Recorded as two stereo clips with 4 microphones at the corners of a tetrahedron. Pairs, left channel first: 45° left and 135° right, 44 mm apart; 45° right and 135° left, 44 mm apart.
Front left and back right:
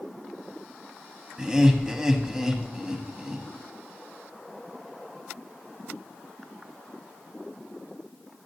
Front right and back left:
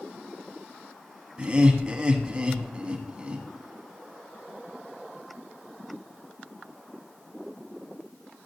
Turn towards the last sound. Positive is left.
turn(degrees=165)